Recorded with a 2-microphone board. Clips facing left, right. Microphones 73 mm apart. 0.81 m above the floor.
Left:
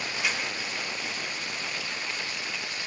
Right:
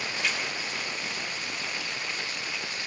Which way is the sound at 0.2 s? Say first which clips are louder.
Left 1 dB; 10° left (ahead or behind).